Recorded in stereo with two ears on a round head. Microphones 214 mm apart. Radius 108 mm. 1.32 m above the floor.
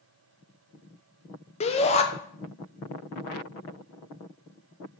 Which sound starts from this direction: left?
A shout, at 1.6 s.